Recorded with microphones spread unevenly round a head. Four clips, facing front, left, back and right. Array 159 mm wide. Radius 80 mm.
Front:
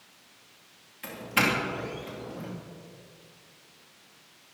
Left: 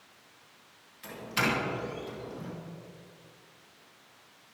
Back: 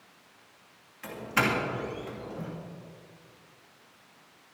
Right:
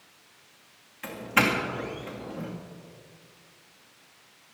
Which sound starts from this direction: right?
A doorbell, at 1.0 s.